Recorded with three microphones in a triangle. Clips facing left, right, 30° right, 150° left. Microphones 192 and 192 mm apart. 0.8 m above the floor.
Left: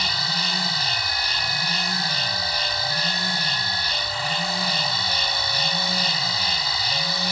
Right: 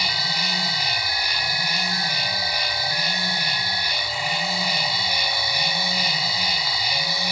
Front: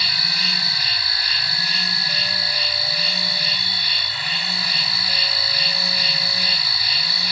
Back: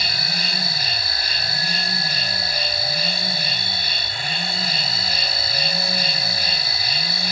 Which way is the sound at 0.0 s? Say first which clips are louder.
Even, back 3 dB; 165° right.